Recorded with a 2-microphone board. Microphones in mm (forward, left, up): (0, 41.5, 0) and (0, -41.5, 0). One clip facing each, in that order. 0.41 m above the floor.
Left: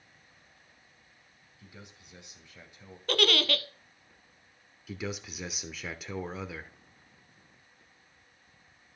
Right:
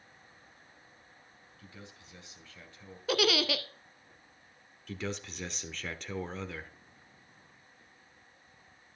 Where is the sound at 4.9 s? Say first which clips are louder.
Left 1 dB; 5° left (ahead or behind), 0.8 m.